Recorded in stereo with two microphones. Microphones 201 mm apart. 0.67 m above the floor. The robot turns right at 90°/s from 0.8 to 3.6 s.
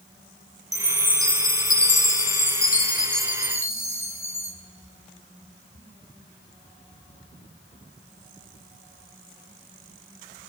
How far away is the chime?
About 0.6 m.